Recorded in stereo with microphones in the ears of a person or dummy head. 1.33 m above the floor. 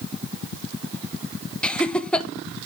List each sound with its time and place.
1.6 s laughter: 5° left (ahead or behind), 1.0 m